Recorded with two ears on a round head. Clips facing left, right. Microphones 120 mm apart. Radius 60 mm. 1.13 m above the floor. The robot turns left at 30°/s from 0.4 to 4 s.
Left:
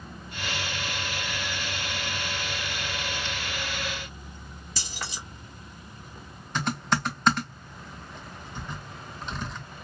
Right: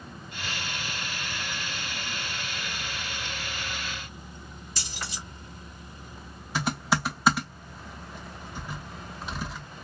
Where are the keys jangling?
65° left (ahead or behind), 2 m.